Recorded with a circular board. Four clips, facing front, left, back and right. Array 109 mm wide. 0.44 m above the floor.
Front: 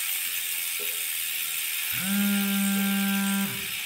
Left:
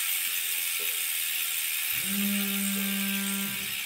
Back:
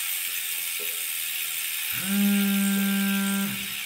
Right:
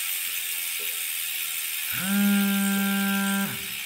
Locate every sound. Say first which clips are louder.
1.9 s a phone buzzing: right 9 dB, back 2 dB; 85° right, 2.5 m